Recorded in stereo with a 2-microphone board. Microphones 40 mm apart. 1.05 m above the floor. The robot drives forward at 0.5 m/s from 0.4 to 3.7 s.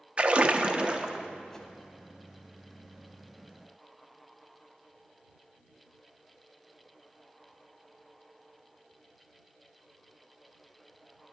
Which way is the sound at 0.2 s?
30° right (ahead or behind).